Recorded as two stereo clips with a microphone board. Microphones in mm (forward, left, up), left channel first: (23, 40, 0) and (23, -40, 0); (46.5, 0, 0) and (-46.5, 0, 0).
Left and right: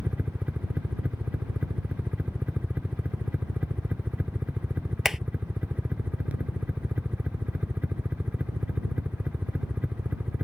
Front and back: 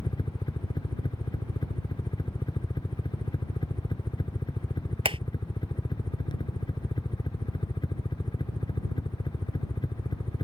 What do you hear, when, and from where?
0.0 s a helicopter: 20° right
5.0 s hammering: 175° right